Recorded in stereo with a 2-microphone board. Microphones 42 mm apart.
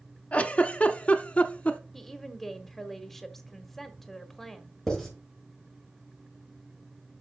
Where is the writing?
5° left (ahead or behind), 5 m.